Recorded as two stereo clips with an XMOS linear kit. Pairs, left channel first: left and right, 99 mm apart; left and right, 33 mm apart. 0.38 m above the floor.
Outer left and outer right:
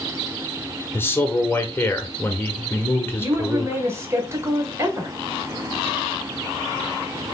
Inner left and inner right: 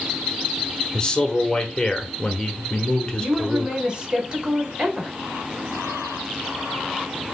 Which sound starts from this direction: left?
A man speaking, at 0.9 s.